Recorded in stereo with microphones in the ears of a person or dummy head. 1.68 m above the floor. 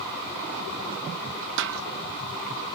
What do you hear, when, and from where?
1.6 s a snare drum: 65° right (ahead or behind)